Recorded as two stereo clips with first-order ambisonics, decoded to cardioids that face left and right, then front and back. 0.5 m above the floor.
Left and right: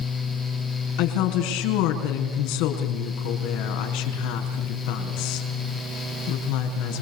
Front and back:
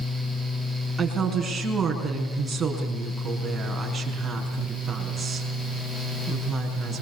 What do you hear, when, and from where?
1.0 s a woman speaking: 100° left, 5.5 m